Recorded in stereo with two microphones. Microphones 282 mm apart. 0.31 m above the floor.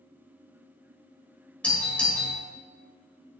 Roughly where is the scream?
No scream in this recording.